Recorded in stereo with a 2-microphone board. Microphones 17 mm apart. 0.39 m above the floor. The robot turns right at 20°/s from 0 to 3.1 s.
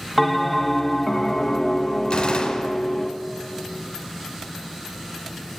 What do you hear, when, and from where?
0.2 s a bell: 5° right, 0.7 m; by 3.1 s 50° left, 0.7 m
2.1 s a gunshot: 70° left (ahead or behind), 1.0 m; by 2.7 s 60° left (ahead or behind), 1.0 m